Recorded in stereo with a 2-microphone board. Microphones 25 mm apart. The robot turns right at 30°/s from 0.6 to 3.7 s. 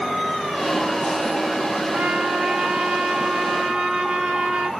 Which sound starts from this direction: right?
A trumpet, at 1.9 s.